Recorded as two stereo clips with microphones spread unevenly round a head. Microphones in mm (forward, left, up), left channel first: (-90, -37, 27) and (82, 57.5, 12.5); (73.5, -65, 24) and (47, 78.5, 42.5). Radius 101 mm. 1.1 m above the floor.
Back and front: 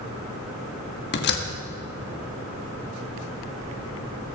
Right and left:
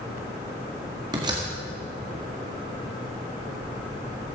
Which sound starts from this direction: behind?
A door slam, at 1.1 s.